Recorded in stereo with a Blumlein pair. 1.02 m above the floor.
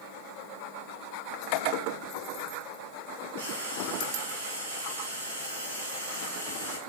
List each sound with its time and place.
3.4 s frying: 65° right, 6 m